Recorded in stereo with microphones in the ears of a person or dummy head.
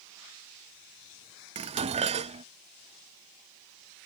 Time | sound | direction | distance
1.6 | dishes clattering | 30° right (ahead or behind) | ?